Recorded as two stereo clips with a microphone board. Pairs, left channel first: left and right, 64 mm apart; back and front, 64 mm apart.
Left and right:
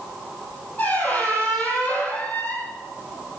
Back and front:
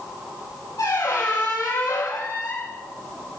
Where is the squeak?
160° left, 6.5 m.